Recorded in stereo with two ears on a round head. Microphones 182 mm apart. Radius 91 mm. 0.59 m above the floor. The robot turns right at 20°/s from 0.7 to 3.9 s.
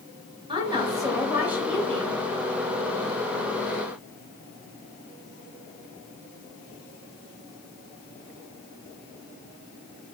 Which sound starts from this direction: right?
A woman speaking, at 0.5 s.